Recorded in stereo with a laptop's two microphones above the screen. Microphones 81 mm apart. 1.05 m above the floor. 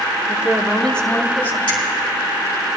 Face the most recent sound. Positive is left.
turn(degrees=85)